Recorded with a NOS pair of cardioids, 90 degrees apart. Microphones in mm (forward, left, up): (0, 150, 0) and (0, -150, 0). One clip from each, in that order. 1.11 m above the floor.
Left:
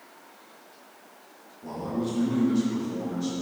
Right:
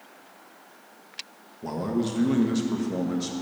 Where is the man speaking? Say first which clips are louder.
Right 3 dB; 55° right, 1.1 m.